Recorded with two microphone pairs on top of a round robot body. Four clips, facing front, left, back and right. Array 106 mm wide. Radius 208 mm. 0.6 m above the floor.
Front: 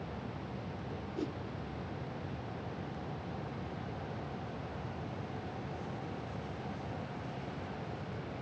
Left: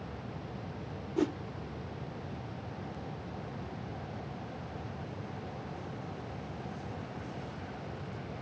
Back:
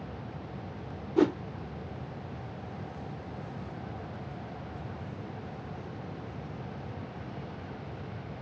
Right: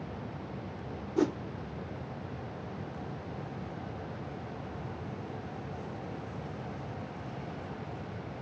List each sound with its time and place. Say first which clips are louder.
1.2 s a whoosh: right 3 dB, back 15 dB; 165° right